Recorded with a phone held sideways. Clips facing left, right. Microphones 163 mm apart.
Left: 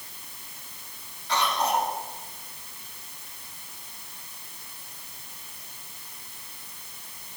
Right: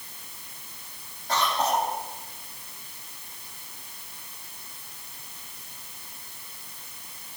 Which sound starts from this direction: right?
A cough, at 1.3 s.